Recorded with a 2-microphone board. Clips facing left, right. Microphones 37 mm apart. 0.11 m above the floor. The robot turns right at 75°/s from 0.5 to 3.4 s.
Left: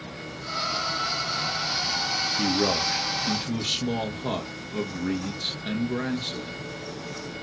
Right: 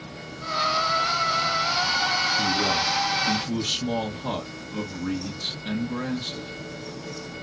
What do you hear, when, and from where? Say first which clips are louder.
2.4 s a man speaking: right 1 dB; 85° left, 1.6 m; by 6.5 s 160° left, 1.6 m